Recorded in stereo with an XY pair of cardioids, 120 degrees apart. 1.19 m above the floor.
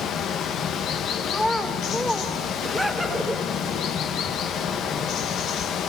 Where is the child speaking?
10° left, 2.5 m.